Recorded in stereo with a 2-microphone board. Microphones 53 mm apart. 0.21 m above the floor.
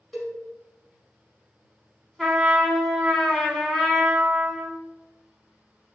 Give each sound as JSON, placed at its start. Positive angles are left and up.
{"t": 0.1, "sound": "a cowbell", "side_deg": 10, "distance_m": 1.0}
{"t": 2.2, "sound": "a trumpet", "side_deg": 5, "distance_m": 0.8}